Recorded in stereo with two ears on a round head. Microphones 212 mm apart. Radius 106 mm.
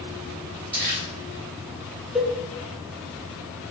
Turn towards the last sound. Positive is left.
turn(degrees=0)  # may be behind; listen again after turning